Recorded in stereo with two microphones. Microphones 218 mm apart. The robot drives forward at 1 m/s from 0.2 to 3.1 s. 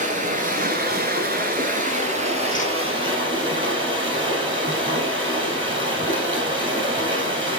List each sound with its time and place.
0.0 s running water: 35° right (ahead or behind), 1.6 m; by 7.6 s 25° right (ahead or behind), 2.5 m
2.5 s a whoosh: 40° left (ahead or behind), 0.6 m; by 2.7 s 30° left (ahead or behind), 0.8 m